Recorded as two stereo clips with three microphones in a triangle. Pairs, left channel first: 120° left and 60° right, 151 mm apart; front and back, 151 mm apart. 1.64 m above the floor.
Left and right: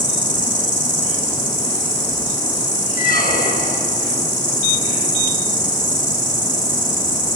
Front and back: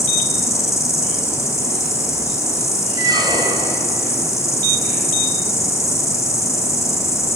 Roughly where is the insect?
Ahead right.